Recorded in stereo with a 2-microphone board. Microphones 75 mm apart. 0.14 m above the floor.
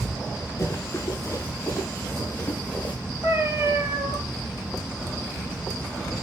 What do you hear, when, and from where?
0.6 s running footsteps: 30° left (ahead or behind), 4.5 m; by 3.0 s 20° left (ahead or behind), 3.5 m
3.2 s a cat meowing: 35° right (ahead or behind), 1.1 m